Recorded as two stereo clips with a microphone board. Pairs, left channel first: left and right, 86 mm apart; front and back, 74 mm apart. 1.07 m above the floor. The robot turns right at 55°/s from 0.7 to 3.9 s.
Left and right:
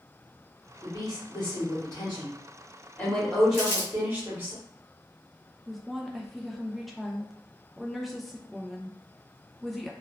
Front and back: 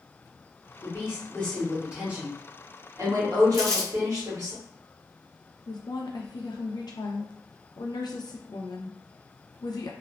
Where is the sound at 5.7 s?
Straight ahead, 0.5 m.